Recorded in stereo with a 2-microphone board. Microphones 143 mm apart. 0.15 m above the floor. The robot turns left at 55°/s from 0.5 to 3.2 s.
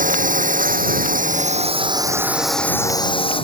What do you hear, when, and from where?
0.0 s a drone: 70° right; by 3.5 s 140° left